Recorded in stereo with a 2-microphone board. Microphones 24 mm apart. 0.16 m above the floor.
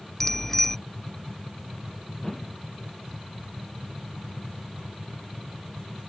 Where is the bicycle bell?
10° left (ahead or behind).